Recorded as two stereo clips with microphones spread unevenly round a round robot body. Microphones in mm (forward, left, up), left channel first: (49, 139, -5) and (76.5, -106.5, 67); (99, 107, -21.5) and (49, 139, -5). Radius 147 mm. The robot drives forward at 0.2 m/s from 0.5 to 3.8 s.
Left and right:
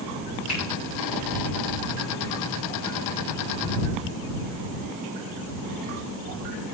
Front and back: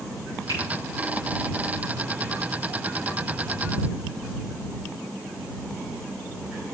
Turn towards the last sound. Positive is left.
turn(degrees=160)